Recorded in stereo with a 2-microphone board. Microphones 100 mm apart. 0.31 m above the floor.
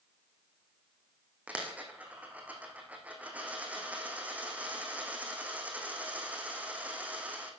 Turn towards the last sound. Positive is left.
turn(degrees=-15)  # may be behind; listen again after turning